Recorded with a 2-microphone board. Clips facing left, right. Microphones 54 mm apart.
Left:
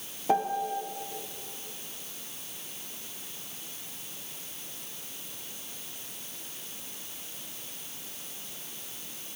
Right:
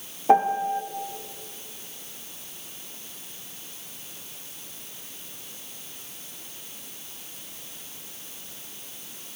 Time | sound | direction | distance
0.3 | a piano | 35° right (ahead or behind) | 1.0 m